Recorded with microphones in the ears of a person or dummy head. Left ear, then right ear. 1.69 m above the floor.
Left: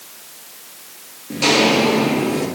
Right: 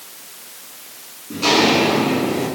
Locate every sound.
1.3 s footsteps: 40° left (ahead or behind), 2.5 m; by 2.5 s 45° left (ahead or behind), 3 m